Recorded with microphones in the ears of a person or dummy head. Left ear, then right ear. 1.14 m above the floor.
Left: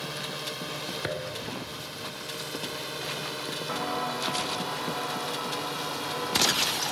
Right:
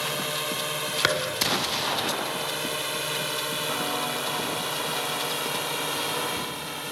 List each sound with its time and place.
0.0 s a drone: 30° right (ahead or behind); by 6.9 s 25° right (ahead or behind)
1.0 s a thud: 55° right (ahead or behind)
3.7 s footsteps: 10° left (ahead or behind)